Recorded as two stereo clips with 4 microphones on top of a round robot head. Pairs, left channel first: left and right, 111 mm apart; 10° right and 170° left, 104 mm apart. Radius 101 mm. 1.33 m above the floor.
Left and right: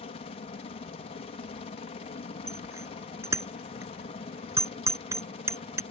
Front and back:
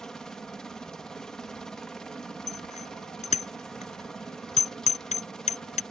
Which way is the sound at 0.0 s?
75° left.